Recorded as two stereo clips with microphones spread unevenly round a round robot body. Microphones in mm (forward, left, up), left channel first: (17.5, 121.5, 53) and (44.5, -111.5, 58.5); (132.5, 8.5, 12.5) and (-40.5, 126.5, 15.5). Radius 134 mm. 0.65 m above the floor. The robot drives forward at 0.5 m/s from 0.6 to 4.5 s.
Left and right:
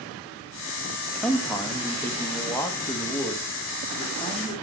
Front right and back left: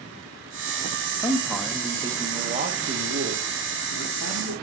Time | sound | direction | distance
1.2 | a man speaking | 20° left | 0.8 m